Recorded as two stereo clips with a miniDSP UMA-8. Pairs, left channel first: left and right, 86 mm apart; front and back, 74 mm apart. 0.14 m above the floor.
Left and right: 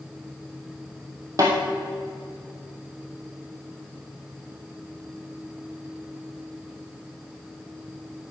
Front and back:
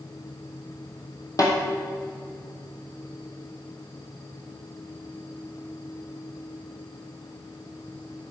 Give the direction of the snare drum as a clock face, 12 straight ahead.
1 o'clock.